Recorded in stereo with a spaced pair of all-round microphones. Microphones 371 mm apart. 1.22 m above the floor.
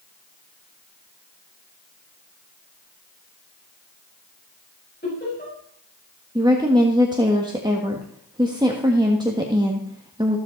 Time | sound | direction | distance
5.0 | laughter | 25° left (ahead or behind) | 6.5 m
6.3 | a woman speaking | 10° right (ahead or behind) | 1.6 m